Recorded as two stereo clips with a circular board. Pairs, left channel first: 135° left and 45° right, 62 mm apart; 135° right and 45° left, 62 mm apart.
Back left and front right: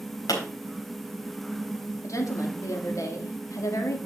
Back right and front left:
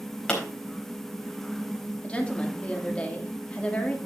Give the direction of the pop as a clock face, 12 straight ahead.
7 o'clock.